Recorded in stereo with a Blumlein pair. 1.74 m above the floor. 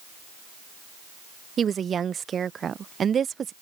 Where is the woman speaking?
20° right.